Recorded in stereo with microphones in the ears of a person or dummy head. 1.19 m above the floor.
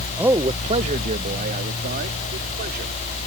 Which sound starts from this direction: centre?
A man speaking, at 0.2 s.